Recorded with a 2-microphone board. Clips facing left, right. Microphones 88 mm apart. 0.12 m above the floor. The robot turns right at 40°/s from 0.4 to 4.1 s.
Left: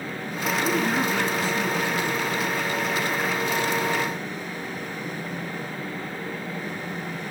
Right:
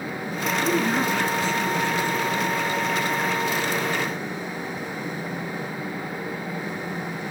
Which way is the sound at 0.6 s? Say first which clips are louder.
Right 1 dB; 5° right (ahead or behind).